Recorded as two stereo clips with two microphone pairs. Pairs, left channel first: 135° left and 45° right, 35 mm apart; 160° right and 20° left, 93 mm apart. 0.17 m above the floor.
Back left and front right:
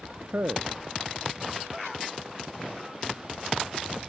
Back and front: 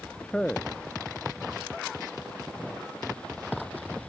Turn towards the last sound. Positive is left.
turn(degrees=-80)